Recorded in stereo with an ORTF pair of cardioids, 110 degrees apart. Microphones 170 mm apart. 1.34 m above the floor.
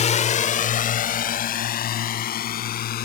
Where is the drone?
40° left; by 3.1 s 60° left.